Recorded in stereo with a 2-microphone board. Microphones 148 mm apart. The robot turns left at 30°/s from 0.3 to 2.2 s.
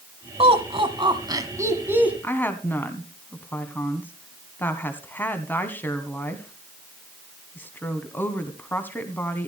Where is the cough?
I don't hear a cough.